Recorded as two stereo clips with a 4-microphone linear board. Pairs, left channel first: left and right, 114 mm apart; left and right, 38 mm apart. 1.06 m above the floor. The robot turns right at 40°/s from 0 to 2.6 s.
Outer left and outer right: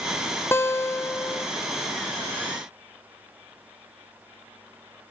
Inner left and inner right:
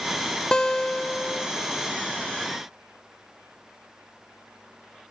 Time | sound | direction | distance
0.5 | a guitar | 20° left (ahead or behind) | 0.5 m